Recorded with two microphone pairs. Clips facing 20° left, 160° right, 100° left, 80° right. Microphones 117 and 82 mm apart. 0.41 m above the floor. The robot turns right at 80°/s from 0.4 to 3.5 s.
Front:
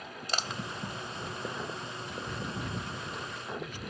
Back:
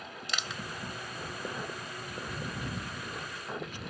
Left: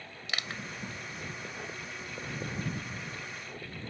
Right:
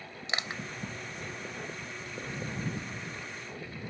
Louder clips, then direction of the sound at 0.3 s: Front 4 dB, right 2 dB; 20° right.